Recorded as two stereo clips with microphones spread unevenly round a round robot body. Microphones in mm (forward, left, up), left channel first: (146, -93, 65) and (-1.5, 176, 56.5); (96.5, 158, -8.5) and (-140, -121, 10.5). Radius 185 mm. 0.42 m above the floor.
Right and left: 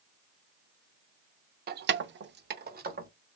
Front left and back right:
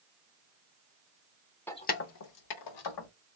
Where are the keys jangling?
125° left, 0.5 m; by 3.1 s 55° left, 1.2 m.